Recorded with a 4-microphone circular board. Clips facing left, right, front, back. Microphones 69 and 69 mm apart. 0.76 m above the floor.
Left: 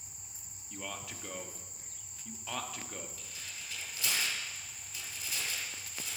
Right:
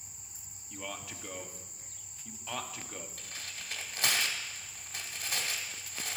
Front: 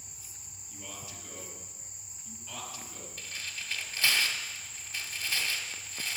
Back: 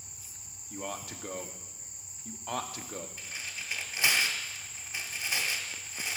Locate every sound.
0.7 s a man speaking: 175° right, 1.2 m
3.2 s tearing paper: 110° right, 1.6 m